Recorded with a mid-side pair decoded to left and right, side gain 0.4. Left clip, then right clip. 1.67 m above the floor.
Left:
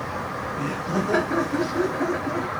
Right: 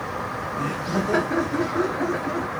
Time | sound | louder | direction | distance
0.6 | laughter | right 1 dB | 5° left | 1.0 m